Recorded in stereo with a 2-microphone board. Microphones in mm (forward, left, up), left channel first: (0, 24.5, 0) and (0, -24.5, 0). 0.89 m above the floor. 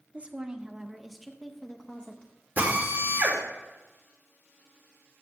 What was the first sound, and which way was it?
A woman speaking, 25° right (ahead or behind).